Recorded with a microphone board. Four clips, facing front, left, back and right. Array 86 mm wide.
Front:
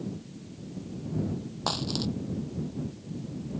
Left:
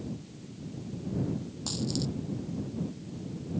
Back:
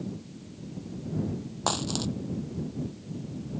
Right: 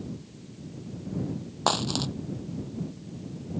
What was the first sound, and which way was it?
A dropped coin, 100° right.